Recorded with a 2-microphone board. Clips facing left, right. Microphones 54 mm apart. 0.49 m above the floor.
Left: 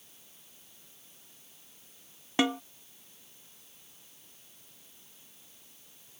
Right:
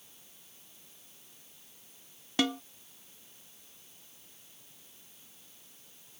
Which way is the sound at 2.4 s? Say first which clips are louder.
Left 2 dB; 25° left (ahead or behind).